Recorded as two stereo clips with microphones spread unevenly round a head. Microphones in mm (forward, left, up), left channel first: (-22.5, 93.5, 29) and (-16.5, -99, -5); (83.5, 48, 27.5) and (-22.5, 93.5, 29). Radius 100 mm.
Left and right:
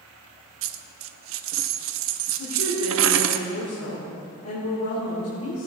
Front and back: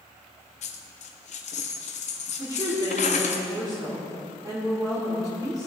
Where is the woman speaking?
100° left, 3.5 m.